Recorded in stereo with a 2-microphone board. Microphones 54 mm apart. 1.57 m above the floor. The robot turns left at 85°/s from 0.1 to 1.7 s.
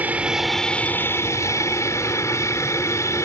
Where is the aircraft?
145° right; by 3.3 s 75° left.